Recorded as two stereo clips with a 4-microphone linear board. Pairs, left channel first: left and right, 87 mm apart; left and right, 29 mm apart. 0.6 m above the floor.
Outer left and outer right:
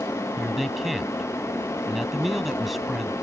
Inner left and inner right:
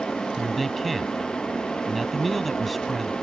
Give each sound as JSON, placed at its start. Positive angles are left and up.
{"t": 0.4, "sound": "a man speaking", "side_deg": 0}